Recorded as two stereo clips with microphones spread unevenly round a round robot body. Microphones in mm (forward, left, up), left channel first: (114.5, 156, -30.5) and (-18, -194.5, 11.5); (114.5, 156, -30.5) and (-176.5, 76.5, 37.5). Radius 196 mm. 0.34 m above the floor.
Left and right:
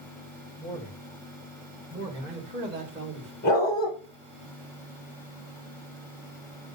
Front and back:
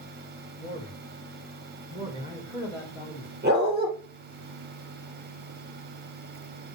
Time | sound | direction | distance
0.6 | a man speaking | 135° left | 1.9 m
3.4 | a dog barking | 140° left | 4 m